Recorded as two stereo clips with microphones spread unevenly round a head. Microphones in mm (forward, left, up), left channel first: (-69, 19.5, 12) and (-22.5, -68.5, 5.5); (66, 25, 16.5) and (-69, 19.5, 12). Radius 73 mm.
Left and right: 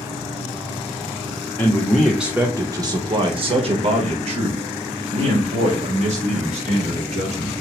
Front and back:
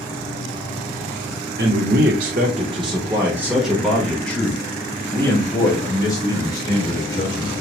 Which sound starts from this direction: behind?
A man speaking, at 1.6 s.